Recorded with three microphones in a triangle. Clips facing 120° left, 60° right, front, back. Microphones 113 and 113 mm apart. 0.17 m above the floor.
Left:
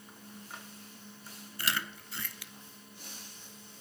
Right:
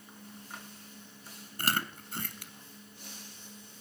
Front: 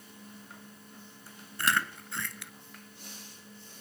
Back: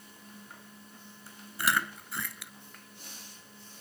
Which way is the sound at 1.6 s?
95° right.